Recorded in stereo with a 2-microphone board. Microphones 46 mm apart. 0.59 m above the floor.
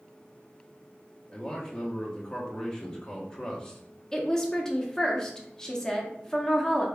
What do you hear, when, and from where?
1.3 s a man speaking: 15° left (ahead or behind), 0.8 m
4.1 s a woman speaking: 10° left (ahead or behind), 0.6 m